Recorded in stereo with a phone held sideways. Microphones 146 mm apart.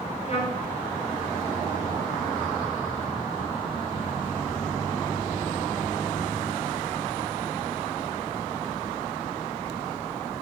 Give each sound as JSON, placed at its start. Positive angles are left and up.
{"t": 0.2, "sound": "a trumpet", "side_deg": 40, "distance_m": 9.0}